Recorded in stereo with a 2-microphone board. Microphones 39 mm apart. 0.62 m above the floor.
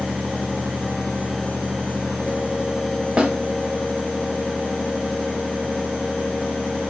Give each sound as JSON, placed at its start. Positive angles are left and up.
{"t": 3.2, "sound": "a snare drum", "side_deg": -25, "distance_m": 0.5}